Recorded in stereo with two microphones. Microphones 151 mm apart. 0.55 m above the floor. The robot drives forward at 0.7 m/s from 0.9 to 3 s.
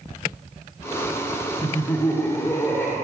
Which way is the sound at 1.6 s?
25° left (ahead or behind).